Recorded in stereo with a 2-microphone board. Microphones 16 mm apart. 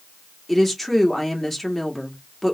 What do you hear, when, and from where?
0.5 s a woman speaking: 10° left (ahead or behind), 1.7 m